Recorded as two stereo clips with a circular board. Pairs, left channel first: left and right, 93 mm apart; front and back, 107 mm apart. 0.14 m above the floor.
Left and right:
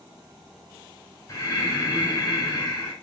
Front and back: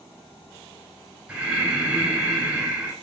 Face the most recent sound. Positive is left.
turn(degrees=105)